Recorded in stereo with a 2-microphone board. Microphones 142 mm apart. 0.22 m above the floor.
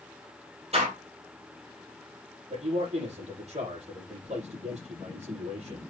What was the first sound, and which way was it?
A door slam, 45° right (ahead or behind).